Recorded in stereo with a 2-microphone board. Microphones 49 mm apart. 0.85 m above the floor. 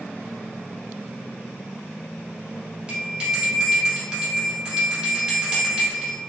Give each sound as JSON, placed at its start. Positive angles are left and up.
{"t": 2.9, "sound": "a bell", "side_deg": -20, "distance_m": 1.5}